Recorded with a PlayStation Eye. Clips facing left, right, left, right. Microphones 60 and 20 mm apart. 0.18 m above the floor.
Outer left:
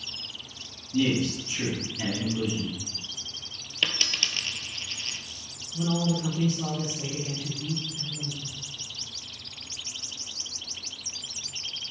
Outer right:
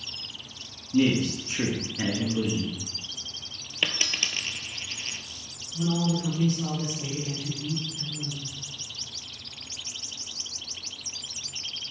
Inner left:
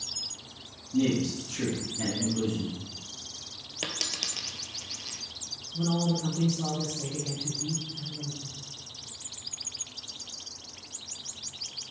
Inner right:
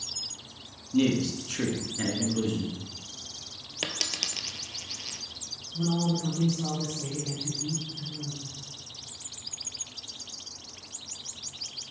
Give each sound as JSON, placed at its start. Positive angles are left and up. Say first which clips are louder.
{"t": 0.9, "sound": "a man speaking", "louder": "outer right 2 dB, inner right 1 dB", "side_deg": -45, "distance_m": 1.9}
{"t": 3.8, "sound": "a dropped coin", "louder": "even, inner right 1 dB", "side_deg": -15, "distance_m": 0.7}
{"t": 5.7, "sound": "a man speaking", "louder": "even, even", "side_deg": 20, "distance_m": 3.5}